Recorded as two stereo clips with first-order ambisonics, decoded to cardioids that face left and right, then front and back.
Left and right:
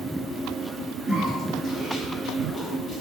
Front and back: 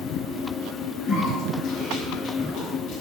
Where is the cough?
35° left, 2 m.